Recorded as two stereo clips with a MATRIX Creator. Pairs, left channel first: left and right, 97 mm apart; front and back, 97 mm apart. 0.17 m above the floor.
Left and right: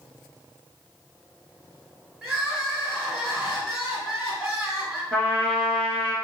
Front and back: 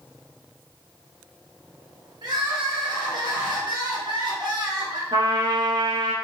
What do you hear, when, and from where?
2.2 s crying: 175° right, 2.0 m
5.1 s a trumpet: 170° left, 1.1 m